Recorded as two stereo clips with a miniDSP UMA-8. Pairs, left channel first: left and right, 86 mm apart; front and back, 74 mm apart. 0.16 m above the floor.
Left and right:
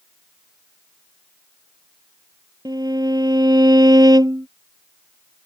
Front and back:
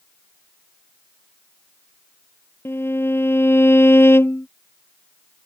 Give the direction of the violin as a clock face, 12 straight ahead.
2 o'clock.